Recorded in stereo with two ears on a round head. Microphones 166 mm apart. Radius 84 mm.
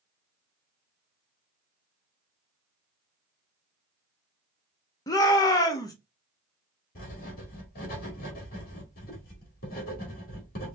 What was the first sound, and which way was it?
A shout, 20° left (ahead or behind).